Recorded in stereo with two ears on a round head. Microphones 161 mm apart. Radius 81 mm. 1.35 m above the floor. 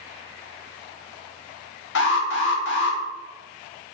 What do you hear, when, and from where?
1.9 s an alarm: 70° left (ahead or behind), 0.8 m